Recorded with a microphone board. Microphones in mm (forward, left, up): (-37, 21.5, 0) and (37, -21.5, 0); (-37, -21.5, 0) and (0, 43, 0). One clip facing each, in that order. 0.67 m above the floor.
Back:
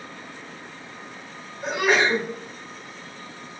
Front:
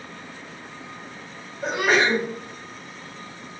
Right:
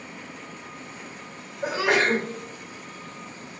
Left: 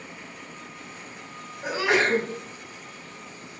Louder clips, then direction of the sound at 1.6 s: Even, right 1 dB; 85° right.